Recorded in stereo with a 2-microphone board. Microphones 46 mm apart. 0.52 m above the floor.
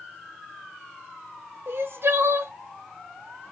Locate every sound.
1.7 s crying: 55° right (ahead or behind), 0.8 m